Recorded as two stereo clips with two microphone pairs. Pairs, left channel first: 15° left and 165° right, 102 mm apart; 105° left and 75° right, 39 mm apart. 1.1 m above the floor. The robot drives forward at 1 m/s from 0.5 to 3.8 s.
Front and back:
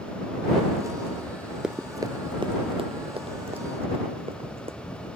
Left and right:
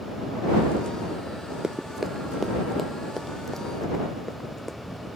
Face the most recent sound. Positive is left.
turn(degrees=-170)